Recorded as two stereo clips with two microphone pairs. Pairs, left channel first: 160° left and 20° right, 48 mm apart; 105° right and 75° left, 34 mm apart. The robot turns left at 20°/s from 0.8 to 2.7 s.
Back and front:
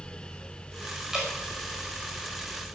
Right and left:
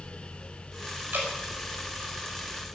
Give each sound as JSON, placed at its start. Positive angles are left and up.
{"t": 1.1, "sound": "dripping", "azimuth_deg": 60, "distance_m": 5.5}